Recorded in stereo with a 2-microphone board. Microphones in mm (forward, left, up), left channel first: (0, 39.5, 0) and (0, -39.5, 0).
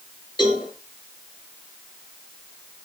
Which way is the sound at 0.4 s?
75° left (ahead or behind).